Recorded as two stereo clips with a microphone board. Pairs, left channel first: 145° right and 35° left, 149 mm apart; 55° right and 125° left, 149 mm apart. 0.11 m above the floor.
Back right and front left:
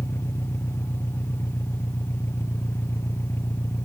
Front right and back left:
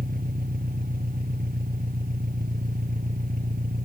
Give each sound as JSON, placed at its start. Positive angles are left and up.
{"t": 0.0, "sound": "an engine running", "azimuth_deg": 140}